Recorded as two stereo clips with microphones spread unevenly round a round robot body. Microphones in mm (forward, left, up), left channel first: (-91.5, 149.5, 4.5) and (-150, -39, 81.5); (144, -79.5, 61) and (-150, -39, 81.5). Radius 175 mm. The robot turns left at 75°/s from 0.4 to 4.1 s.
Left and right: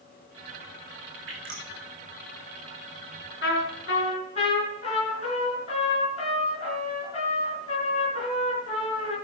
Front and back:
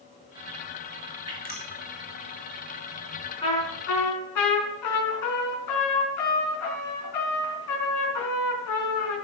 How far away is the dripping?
About 4.5 m.